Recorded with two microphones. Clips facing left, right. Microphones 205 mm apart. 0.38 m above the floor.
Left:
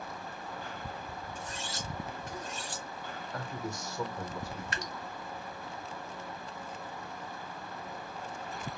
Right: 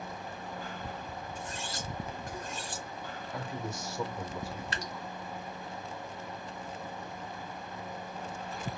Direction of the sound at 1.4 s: 60° right (ahead or behind).